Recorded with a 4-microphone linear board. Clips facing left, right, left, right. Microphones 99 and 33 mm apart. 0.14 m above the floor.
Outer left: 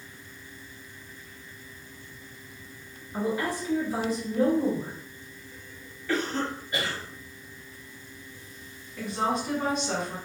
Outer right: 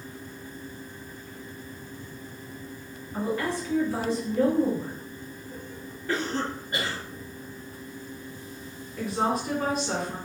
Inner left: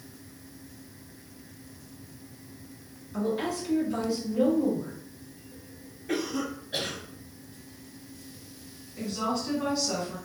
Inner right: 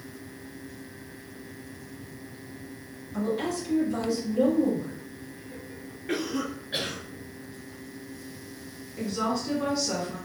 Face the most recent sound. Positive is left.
turn(degrees=-5)  # may be behind; listen again after turning